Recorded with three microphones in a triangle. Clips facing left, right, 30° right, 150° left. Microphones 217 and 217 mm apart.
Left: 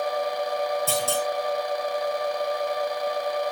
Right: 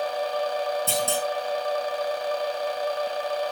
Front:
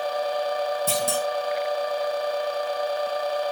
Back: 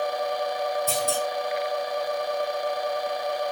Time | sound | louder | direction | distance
0.9 | a clunk | left 1 dB, front 1 dB | 20° right | 4.5 m